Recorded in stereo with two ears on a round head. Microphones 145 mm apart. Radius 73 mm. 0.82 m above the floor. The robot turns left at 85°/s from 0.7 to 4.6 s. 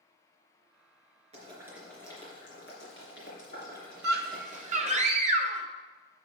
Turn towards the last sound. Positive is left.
turn(degrees=-130)